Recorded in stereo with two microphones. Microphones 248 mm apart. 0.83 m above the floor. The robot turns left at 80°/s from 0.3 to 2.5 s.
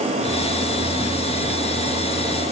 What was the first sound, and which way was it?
Only background noise.